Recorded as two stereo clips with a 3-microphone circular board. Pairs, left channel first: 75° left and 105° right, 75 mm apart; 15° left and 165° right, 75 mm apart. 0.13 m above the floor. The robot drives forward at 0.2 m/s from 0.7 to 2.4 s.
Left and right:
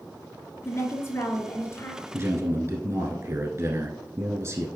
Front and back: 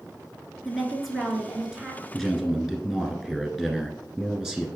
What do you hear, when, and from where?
0.7 s a woman speaking: 105° left, 1.4 m; by 2.0 s 120° left, 1.5 m
2.1 s a man speaking: 75° right, 1.4 m; by 4.7 s 80° right, 1.4 m